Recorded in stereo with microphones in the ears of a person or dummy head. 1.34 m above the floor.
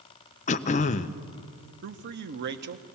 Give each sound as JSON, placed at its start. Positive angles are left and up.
{"t": 0.5, "sound": "throat clearing", "side_deg": 35, "distance_m": 0.5}
{"t": 1.8, "sound": "a man speaking", "side_deg": -55, "distance_m": 1.0}